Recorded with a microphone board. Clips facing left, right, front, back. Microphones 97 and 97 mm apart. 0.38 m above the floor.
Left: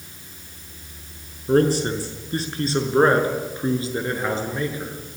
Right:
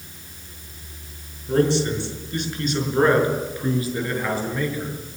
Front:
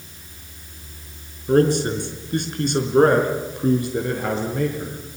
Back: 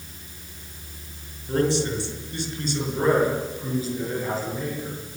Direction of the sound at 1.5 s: 45° left.